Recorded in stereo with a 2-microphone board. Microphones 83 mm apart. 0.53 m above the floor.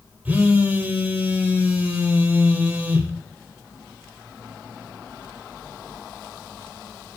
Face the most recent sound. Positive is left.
turn(degrees=-20)  # may be behind; listen again after turning